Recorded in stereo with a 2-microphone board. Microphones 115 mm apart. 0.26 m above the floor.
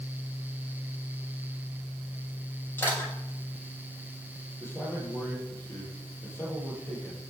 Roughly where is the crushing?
Left.